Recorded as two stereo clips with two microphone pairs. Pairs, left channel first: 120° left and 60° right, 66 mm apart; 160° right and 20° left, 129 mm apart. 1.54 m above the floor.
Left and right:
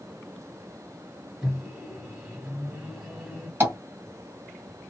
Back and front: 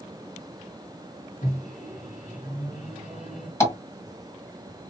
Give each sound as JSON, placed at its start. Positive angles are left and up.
{"t": 1.4, "sound": "a microwave", "azimuth_deg": -140, "distance_m": 1.6}
{"t": 3.6, "sound": "tapping", "azimuth_deg": -95, "distance_m": 1.8}